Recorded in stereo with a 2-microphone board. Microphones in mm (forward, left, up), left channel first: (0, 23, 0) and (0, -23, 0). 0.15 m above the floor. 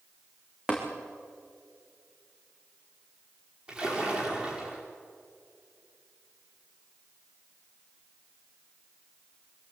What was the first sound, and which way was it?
Tapping, 15° right (ahead or behind).